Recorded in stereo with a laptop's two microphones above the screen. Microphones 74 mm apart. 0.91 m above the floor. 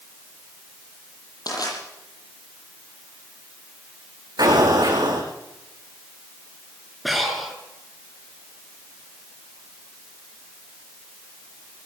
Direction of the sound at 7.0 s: Centre (ahead or behind).